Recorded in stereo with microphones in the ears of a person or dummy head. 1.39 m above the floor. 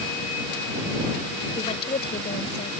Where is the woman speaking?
30° left (ahead or behind); by 2.7 s 40° left (ahead or behind).